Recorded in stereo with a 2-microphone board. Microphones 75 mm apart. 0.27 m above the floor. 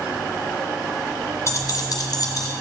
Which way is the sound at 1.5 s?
40° left (ahead or behind).